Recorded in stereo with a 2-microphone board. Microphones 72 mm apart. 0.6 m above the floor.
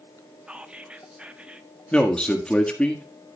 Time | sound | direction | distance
0.5 | whispering | 15° right (ahead or behind) | 0.8 m
1.9 | a man speaking | 15° left (ahead or behind) | 1.4 m